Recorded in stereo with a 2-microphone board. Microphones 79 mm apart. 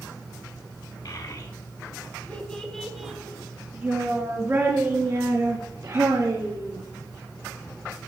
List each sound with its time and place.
1.1 s a child speaking: 55° left (ahead or behind), 1.1 m; by 6.8 s 45° right (ahead or behind), 2.5 m